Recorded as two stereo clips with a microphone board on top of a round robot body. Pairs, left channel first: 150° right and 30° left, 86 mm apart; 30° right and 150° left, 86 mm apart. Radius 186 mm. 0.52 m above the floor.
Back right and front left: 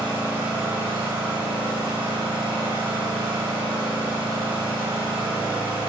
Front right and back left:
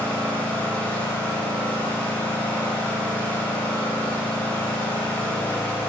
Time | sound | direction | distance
0.0 | an engine running | 45° left | 4 m